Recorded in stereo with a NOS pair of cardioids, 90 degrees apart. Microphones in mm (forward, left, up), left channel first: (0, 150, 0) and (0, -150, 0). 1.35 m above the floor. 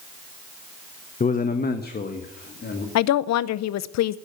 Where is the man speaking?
25° left, 0.9 m; by 2.9 s 35° left, 2.5 m.